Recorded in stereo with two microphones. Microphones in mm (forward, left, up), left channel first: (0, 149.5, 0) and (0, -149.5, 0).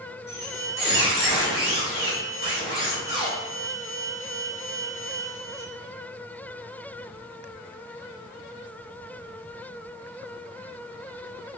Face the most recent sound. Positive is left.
turn(degrees=35)  # may be behind; listen again after turning